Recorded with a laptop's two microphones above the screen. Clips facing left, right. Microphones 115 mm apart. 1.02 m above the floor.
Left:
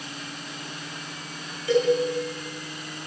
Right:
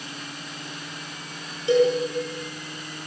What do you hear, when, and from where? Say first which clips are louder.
1.7 s a cowbell: right 3 dB; 25° right (ahead or behind), 9.5 m